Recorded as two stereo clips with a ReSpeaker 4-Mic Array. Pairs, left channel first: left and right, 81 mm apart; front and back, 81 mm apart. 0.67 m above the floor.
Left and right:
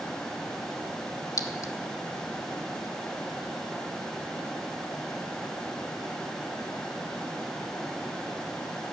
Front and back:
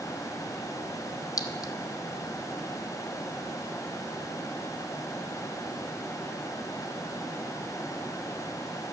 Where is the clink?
45° left, 1.0 m.